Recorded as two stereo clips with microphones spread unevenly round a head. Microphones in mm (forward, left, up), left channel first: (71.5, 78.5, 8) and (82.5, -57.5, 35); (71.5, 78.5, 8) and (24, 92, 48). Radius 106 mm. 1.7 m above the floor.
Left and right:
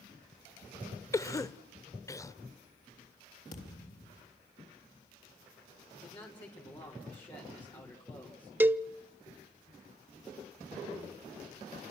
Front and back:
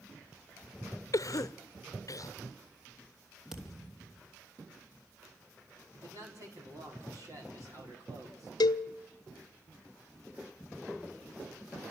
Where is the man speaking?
165° left, 5 m.